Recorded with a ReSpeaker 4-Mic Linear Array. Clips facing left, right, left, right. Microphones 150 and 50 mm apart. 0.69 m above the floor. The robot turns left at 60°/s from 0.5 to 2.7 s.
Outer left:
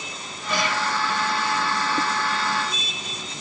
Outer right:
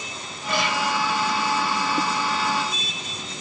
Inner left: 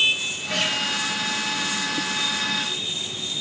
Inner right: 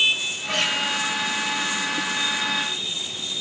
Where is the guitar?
55° right (ahead or behind), 7 m; by 0.8 s 70° right (ahead or behind), 7 m.